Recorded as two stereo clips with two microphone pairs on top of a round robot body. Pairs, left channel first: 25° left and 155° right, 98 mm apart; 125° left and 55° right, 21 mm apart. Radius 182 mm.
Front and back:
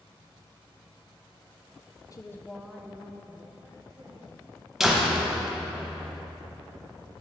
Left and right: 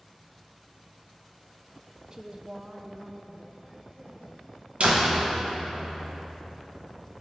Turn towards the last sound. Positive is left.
turn(degrees=-70)